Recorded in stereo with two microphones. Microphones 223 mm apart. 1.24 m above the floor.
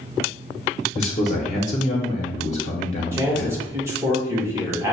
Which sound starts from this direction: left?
A man speaking, at 0.9 s.